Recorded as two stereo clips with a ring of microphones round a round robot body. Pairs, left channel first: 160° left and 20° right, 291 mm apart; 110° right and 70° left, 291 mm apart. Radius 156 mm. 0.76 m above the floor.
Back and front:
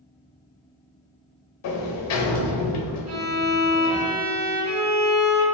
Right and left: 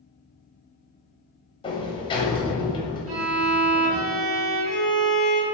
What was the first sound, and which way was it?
A sliding door, 175° left.